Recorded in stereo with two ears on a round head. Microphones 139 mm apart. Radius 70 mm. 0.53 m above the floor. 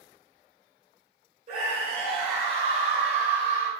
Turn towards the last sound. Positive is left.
turn(degrees=-25)  # may be behind; listen again after turning